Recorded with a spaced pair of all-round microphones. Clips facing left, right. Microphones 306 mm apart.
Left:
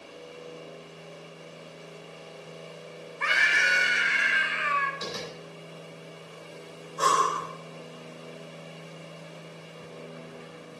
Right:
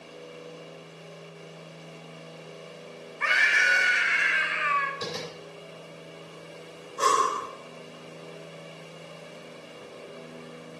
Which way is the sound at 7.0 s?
30° right (ahead or behind).